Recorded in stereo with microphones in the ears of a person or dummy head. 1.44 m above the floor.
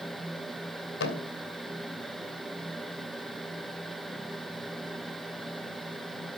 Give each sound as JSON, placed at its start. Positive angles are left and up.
{"t": 1.0, "sound": "a thud", "side_deg": 70, "distance_m": 2.5}